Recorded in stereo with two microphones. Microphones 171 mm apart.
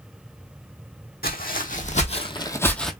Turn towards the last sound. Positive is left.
turn(degrees=0)  # may be behind; listen again after turning